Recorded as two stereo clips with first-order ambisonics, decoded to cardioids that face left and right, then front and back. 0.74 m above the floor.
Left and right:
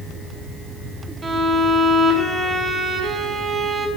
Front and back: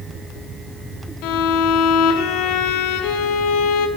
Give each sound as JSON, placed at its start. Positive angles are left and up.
{"t": 1.2, "sound": "a violin", "azimuth_deg": -15, "distance_m": 1.0}